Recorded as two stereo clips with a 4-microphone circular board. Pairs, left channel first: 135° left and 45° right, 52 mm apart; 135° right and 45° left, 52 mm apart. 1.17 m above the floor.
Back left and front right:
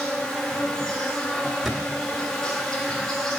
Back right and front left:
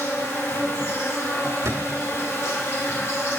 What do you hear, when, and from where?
0.0 s an insect: 150° right, 1.2 m
1.6 s a thud: 45° left, 1.2 m